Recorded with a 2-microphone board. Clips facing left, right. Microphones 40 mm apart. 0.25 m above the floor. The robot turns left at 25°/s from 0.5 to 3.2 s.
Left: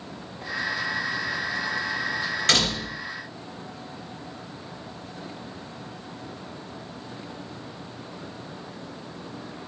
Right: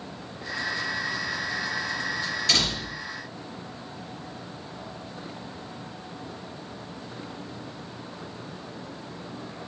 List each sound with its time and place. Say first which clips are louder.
2.5 s a door slam: left 3 dB; 65° left (ahead or behind), 3 m; by 3.0 s 70° left (ahead or behind), 3 m